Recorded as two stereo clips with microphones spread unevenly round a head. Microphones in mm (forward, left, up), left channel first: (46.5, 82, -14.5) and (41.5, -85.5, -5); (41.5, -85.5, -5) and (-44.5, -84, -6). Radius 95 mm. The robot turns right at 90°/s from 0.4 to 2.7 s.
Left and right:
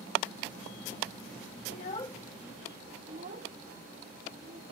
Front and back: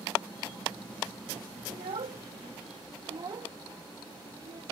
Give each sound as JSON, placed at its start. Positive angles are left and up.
{"t": 1.7, "sound": "a child speaking", "azimuth_deg": 125}